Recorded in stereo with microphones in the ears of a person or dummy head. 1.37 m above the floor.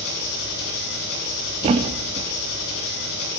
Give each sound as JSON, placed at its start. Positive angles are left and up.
{"t": 0.0, "sound": "an engine running", "side_deg": 65, "distance_m": 8.0}
{"t": 1.6, "sound": "a thud", "side_deg": -25, "distance_m": 0.9}